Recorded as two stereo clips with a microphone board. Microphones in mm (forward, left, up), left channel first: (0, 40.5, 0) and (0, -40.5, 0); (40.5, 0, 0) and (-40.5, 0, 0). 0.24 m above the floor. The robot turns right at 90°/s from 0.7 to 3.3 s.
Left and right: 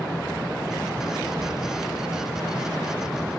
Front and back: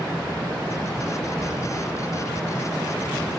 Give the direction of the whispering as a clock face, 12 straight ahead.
3 o'clock.